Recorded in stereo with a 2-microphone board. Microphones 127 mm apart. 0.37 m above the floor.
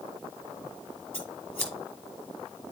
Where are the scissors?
15° left (ahead or behind), 3 m.